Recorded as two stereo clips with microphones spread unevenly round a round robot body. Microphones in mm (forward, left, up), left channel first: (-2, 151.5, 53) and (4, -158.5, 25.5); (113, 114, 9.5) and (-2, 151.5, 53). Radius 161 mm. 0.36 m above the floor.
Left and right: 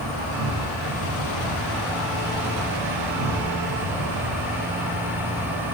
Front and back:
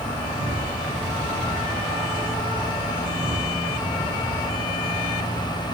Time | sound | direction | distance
0.0 | an insect | 70° right | 10 m